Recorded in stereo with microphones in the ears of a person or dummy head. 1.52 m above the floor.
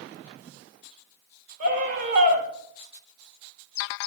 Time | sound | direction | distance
1.6 | a scream | 50° right (ahead or behind) | 3 m